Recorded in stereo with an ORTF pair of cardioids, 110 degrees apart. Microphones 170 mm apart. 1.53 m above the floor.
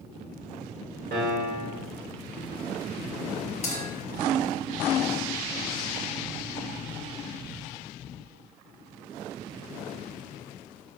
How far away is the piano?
About 0.9 m.